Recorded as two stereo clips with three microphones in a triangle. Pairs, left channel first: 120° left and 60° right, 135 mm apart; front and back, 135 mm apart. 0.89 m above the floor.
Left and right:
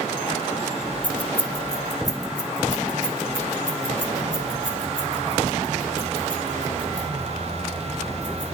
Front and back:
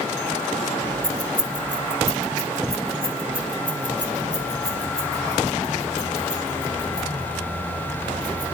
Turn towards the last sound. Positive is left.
turn(degrees=105)